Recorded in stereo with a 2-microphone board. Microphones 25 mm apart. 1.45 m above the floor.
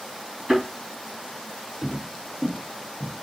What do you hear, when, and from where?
0.5 s a thud: 30° right (ahead or behind), 3 m
1.8 s footsteps: centre (ahead or behind), 2 m; by 3.1 s 20° right (ahead or behind), 1.6 m